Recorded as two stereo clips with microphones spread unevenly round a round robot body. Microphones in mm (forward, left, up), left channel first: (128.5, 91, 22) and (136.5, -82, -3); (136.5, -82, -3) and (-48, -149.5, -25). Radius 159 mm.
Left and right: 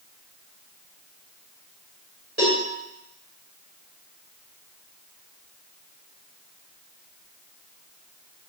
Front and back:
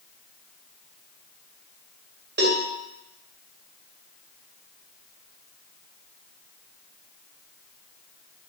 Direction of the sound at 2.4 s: 135° right.